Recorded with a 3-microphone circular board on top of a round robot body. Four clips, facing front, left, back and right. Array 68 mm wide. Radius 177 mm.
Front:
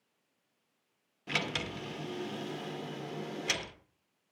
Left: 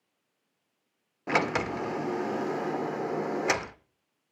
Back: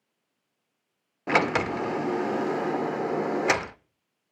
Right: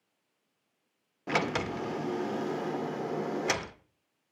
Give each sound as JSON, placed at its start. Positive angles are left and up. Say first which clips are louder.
{"t": 1.3, "sound": "a sliding door", "louder": "left 3 dB, back 13 dB", "azimuth_deg": 165, "distance_m": 0.5}